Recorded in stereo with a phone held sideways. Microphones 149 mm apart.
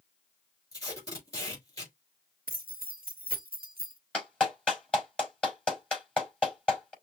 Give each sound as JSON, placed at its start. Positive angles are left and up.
{"t": 0.7, "sound": "tape being pulled", "side_deg": 20, "distance_m": 3.5}
{"t": 2.5, "sound": "keys jangling", "side_deg": -80, "distance_m": 1.1}
{"t": 4.1, "sound": "a clap", "side_deg": 5, "distance_m": 4.5}